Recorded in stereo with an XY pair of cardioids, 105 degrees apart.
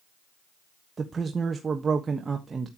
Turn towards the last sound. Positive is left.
turn(degrees=-30)